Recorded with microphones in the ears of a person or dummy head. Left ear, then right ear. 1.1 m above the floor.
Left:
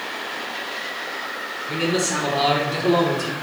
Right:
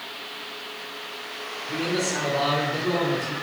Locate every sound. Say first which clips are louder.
1.7 s a man speaking: left 3 dB; 35° left (ahead or behind), 3 m; by 3.3 s 75° left (ahead or behind), 2 m